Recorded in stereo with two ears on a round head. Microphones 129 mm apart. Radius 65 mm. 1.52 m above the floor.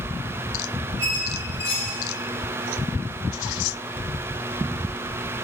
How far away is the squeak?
About 3 m.